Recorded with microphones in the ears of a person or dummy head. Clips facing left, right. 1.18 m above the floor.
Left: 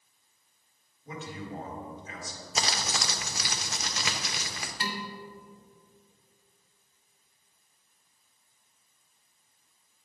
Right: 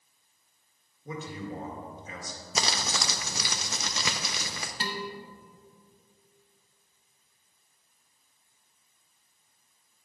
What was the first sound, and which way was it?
A man speaking, 80° right.